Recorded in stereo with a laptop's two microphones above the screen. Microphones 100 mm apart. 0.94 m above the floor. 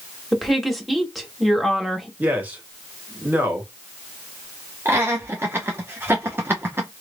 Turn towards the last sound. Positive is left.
turn(degrees=-20)  # may be behind; listen again after turning